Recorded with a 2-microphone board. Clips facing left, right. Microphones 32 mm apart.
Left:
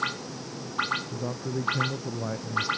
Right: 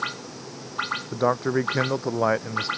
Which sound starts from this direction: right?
A man speaking, at 1.1 s.